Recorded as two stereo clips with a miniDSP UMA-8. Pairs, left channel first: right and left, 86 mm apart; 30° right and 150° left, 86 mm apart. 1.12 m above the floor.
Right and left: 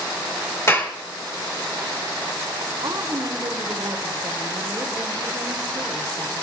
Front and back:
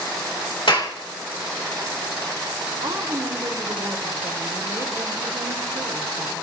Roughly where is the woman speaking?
Behind left.